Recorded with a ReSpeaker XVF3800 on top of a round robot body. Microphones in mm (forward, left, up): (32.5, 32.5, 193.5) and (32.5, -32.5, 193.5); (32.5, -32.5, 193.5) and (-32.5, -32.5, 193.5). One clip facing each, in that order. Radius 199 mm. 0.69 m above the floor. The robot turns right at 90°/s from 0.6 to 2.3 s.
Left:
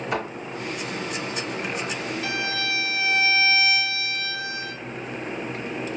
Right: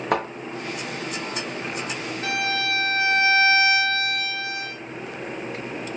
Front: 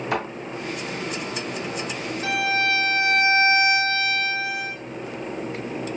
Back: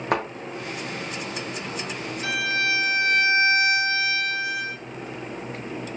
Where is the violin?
50° right, 1.5 m; by 4.7 s 45° right, 1.5 m.